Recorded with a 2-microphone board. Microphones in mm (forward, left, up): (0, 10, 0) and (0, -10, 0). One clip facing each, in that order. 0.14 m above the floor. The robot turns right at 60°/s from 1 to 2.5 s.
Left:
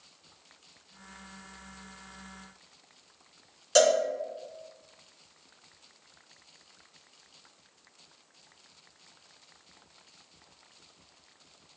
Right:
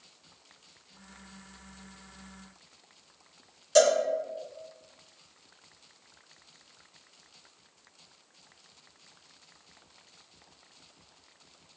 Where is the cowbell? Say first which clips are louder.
Even; 30° left (ahead or behind), 1.3 m.